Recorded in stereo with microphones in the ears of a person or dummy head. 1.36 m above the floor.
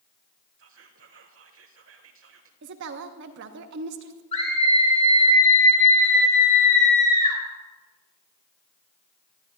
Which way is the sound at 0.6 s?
65° right (ahead or behind).